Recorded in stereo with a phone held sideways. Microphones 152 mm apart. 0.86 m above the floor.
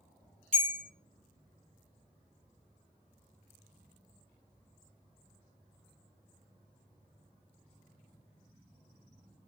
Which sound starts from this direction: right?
A bell, at 0.5 s.